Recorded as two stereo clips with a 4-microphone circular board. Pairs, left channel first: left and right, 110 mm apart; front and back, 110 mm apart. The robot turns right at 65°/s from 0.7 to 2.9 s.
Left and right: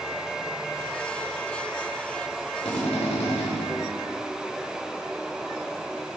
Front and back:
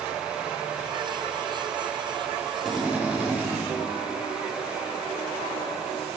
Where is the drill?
85° left, 4 m; by 3.5 s 105° left, 4 m.